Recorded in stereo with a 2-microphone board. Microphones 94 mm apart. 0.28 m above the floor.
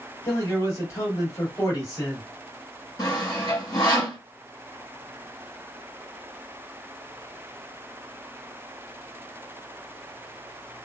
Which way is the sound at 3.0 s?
45° left (ahead or behind).